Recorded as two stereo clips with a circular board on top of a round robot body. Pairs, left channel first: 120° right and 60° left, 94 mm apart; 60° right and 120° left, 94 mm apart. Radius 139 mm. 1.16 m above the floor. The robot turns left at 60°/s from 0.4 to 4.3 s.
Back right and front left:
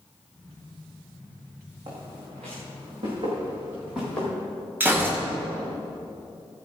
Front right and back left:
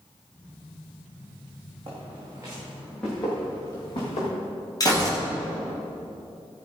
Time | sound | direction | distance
1.9 | footsteps | 85° left | 4 m
4.8 | a gunshot | 10° right | 3 m